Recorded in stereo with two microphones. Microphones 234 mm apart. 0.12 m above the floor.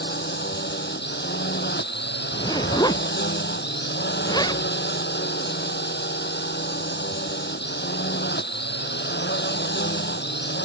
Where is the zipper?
15° left (ahead or behind).